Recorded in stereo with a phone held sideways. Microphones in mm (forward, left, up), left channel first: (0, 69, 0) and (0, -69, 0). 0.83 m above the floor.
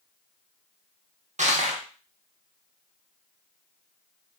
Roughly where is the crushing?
Right.